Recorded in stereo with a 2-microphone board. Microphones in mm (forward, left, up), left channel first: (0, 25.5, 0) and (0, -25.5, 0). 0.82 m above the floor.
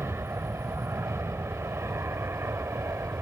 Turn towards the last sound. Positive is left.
turn(degrees=-60)  # may be behind; listen again after turning